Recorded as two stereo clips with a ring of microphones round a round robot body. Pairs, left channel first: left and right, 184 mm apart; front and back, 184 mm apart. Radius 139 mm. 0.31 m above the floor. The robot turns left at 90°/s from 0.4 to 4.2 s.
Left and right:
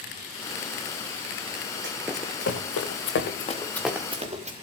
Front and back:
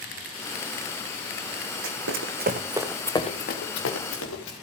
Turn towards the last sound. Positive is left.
turn(degrees=-35)